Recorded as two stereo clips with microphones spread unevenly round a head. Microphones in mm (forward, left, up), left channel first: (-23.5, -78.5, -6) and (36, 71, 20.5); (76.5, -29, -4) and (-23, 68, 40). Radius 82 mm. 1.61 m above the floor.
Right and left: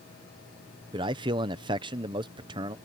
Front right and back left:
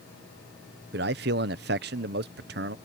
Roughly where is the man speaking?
Behind left.